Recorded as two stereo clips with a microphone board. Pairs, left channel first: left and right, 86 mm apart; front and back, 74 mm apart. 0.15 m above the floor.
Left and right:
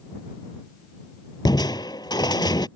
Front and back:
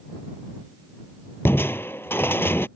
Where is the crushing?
60° left.